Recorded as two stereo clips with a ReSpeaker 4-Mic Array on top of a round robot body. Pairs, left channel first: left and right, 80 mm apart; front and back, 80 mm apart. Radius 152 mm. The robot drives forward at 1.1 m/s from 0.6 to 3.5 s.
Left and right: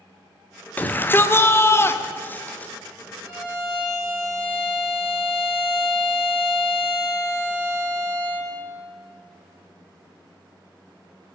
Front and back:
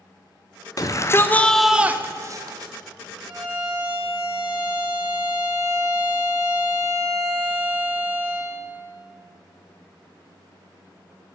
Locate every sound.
0.8 s a shout: 25° left, 1.4 m; by 2.7 s 160° left, 1.6 m
3.3 s a violin: 155° right, 6 m